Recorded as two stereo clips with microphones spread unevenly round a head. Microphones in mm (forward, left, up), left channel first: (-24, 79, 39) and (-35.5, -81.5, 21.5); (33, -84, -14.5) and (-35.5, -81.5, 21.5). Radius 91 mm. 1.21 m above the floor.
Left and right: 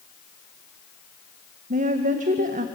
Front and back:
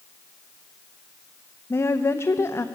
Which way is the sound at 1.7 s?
50° right.